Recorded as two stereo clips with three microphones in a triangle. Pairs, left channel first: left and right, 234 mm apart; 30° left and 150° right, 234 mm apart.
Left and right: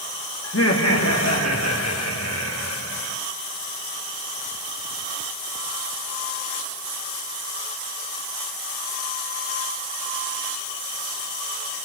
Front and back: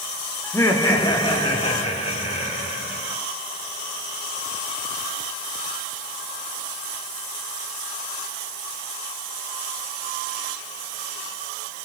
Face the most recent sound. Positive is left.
turn(degrees=85)